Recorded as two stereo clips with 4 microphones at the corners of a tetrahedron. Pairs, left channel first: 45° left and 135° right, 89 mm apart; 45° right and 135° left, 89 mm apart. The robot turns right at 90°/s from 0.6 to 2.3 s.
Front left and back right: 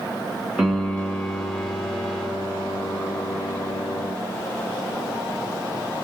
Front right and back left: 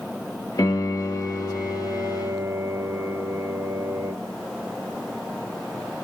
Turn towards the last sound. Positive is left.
turn(degrees=100)